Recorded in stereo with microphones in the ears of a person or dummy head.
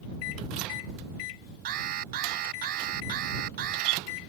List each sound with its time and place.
1.6 s an alarm: 45° right (ahead or behind)